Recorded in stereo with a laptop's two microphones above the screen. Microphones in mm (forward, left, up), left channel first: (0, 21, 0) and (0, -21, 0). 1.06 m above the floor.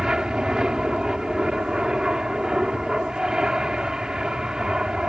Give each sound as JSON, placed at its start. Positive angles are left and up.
{"t": 0.0, "sound": "an aircraft", "side_deg": -20}